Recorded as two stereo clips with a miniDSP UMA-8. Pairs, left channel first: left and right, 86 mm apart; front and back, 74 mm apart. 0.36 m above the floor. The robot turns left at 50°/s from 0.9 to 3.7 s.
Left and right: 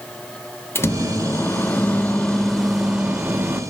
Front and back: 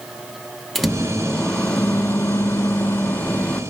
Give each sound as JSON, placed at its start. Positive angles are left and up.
{"t": 0.8, "sound": "a microwave", "azimuth_deg": 85, "distance_m": 0.6}